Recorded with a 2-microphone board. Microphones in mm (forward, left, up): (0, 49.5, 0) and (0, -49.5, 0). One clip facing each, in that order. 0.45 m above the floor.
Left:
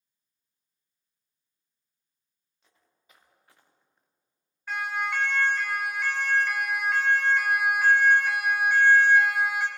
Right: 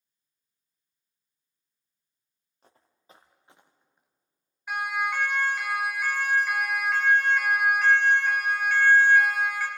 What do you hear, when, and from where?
2.6 s footsteps: 45° right (ahead or behind), 3 m; by 4.1 s 10° right (ahead or behind), 3 m
4.7 s a siren: 15° right (ahead or behind), 5.5 m; by 9.7 s 25° left (ahead or behind), 3.5 m